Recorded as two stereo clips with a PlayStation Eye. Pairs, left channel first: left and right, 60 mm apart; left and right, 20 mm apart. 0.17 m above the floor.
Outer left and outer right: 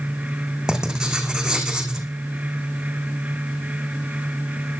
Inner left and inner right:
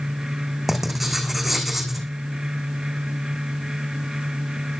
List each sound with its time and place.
0.7 s writing: 10° right (ahead or behind), 2 m